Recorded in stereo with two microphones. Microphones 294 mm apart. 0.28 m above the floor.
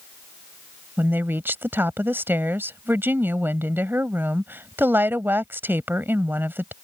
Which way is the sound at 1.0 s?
5° right (ahead or behind).